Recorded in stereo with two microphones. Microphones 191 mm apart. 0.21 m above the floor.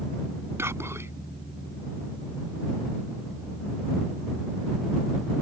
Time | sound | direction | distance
0.6 | whispering | 15° right (ahead or behind) | ?